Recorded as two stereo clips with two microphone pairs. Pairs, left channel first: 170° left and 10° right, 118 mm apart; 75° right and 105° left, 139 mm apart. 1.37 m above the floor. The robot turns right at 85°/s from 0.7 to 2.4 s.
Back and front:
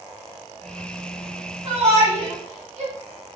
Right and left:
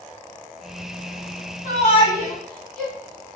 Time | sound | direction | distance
1.6 | a shout | 50° right | 1.5 m